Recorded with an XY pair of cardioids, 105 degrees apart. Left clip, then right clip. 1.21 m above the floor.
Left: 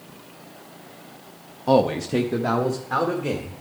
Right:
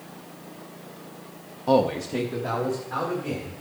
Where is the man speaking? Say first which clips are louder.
Left 2 dB; 15° left, 0.6 m; by 3.6 s 65° left, 2 m.